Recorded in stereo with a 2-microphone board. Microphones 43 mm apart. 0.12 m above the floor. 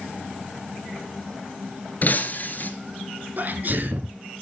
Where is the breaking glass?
45° left (ahead or behind), 1.4 m.